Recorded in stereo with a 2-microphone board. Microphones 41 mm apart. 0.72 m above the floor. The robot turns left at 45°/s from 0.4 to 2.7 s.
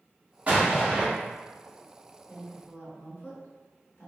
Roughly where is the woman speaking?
Left.